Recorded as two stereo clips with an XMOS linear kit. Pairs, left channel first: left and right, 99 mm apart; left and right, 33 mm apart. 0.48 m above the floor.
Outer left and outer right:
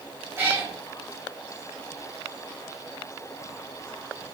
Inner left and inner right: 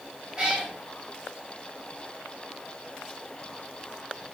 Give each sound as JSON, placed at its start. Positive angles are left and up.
{"t": 0.4, "sound": "a cat meowing", "side_deg": -25, "distance_m": 1.7}